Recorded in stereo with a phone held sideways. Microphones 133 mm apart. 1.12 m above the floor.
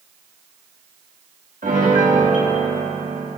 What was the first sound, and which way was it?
A piano, 70° right (ahead or behind).